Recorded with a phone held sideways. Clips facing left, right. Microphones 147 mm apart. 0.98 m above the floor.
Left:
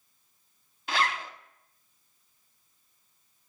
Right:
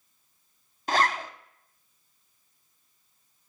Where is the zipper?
40° right (ahead or behind), 0.6 m.